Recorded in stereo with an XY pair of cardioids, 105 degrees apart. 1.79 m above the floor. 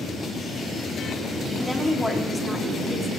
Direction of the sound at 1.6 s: 10° left.